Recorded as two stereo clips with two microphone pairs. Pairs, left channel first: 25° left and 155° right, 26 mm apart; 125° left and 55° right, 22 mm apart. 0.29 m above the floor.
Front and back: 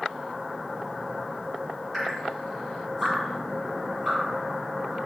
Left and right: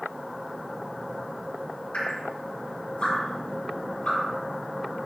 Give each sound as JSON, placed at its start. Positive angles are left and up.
{"t": 1.9, "sound": "dripping", "azimuth_deg": 115, "distance_m": 4.0}